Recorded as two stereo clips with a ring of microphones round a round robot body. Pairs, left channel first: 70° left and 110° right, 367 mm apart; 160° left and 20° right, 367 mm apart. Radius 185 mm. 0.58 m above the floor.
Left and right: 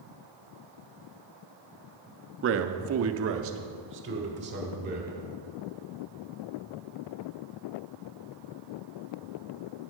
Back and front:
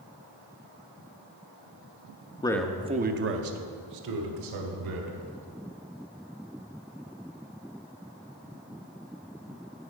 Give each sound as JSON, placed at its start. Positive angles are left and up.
{"t": 2.4, "sound": "a man speaking", "azimuth_deg": -135, "distance_m": 0.7}